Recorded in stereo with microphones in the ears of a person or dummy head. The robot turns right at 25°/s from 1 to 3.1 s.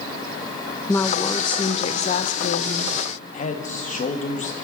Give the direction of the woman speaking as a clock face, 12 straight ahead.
11 o'clock.